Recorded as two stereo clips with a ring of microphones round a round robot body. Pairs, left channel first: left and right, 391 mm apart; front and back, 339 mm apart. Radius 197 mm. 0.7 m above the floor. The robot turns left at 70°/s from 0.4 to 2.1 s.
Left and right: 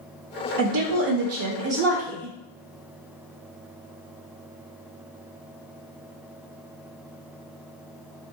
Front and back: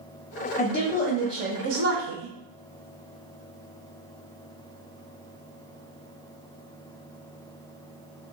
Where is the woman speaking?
60° right, 0.7 m; by 2.3 s 165° right, 0.7 m.